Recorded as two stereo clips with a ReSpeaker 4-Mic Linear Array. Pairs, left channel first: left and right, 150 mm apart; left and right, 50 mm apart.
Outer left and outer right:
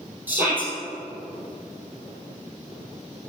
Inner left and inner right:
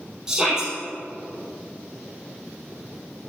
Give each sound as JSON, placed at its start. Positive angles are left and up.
{"t": 0.3, "sound": "a shout", "side_deg": -15, "distance_m": 4.0}